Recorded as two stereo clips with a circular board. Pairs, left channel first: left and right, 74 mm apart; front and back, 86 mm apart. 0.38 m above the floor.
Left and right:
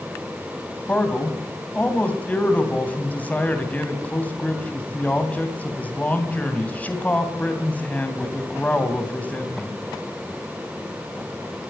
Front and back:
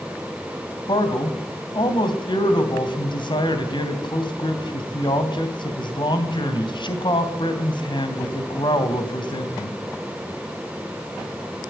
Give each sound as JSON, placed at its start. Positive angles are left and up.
{"t": 0.9, "sound": "a man speaking", "azimuth_deg": 20, "distance_m": 3.0}